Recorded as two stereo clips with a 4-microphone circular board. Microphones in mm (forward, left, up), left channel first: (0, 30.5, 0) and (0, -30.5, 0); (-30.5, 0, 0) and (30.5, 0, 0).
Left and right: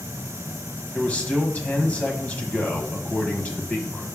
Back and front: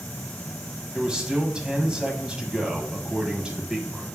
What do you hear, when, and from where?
0.9 s a man speaking: 65° left, 1.4 m